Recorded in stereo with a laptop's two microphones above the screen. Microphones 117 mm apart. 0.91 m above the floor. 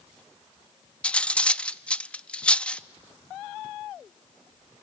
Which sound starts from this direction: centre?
Cutlery clinking, at 1.0 s.